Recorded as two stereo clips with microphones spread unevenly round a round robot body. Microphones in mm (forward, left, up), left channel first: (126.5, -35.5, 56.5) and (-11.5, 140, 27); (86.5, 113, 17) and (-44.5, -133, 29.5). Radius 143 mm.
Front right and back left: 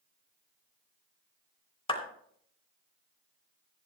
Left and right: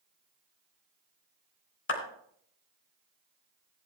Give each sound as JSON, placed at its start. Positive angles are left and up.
{"t": 1.9, "sound": "a clap", "azimuth_deg": 20, "distance_m": 3.0}